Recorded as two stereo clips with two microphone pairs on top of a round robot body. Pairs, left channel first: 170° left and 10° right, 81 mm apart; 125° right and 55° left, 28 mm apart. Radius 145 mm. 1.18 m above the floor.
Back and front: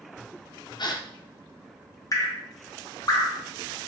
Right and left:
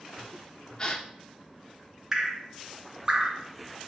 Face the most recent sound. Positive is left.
turn(degrees=125)